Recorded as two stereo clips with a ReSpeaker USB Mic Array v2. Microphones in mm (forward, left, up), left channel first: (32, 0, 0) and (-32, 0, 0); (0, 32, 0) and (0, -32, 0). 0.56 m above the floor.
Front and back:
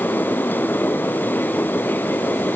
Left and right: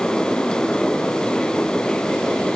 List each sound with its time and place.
Only background noise.